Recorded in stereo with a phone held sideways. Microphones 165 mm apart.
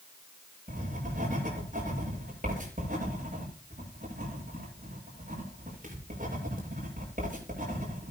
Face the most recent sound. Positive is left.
turn(degrees=-55)  # may be behind; listen again after turning